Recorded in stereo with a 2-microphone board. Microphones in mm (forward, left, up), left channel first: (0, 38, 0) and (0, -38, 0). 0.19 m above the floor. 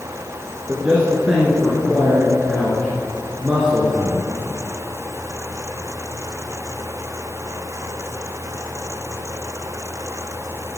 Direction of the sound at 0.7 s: 10° right (ahead or behind).